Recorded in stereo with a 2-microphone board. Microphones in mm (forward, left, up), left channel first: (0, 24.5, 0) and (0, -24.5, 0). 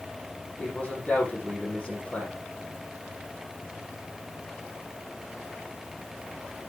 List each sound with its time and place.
0.6 s a man speaking: 35° left (ahead or behind), 6.5 m